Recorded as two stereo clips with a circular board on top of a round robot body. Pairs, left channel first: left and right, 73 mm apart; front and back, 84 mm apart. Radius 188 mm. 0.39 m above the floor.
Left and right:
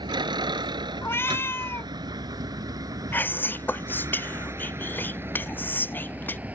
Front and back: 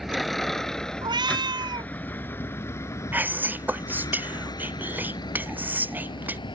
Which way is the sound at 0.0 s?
90° right.